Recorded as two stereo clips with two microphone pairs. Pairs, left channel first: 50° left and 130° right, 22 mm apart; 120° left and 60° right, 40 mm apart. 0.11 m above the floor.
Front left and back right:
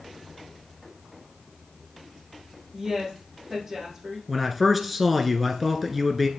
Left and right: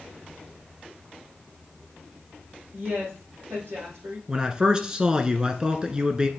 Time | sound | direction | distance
2.7 | a woman speaking | 60° right | 5.5 m
4.3 | a man speaking | 50° right | 1.1 m